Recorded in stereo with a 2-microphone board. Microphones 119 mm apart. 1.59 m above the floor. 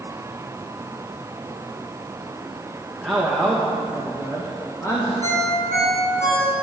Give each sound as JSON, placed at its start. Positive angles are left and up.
{"t": 3.0, "sound": "a man speaking", "side_deg": -5, "distance_m": 2.5}
{"t": 5.2, "sound": "a ringtone", "side_deg": 75, "distance_m": 6.5}